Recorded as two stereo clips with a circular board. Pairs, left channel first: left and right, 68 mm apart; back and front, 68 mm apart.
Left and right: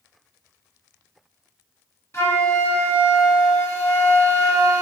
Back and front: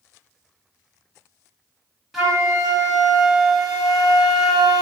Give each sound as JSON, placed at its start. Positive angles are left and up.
{"t": 2.1, "sound": "a flute", "azimuth_deg": 85, "distance_m": 1.1}